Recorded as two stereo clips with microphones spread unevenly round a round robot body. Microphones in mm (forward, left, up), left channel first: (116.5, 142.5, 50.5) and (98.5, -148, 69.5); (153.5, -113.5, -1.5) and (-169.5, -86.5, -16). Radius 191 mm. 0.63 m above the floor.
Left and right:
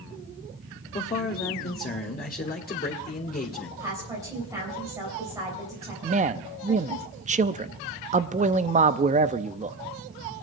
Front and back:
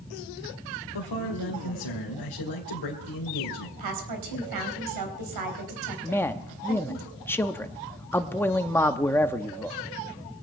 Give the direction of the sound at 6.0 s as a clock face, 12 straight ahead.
3 o'clock.